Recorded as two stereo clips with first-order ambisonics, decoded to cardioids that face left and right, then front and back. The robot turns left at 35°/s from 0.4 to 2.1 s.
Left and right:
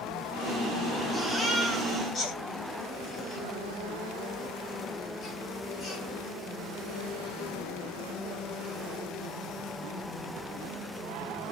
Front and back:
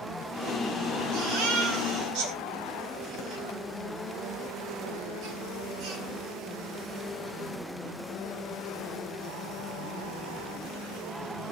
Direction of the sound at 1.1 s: 175° right.